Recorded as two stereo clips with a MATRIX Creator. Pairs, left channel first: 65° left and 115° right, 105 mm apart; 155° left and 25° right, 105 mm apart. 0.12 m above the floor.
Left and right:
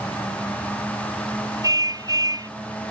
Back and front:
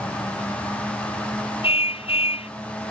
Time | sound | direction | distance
1.6 | a car horn | 170° right | ?